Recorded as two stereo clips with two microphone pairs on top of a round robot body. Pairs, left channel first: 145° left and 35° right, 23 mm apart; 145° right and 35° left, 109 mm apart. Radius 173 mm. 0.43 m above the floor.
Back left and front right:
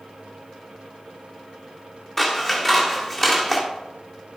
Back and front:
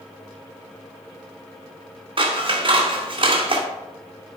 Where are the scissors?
70° left, 2 m.